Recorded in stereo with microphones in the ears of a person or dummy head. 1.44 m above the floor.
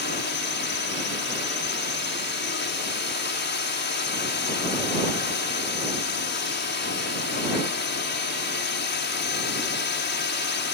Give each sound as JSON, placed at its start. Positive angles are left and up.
{"t": 0.0, "sound": "a drone", "side_deg": 45}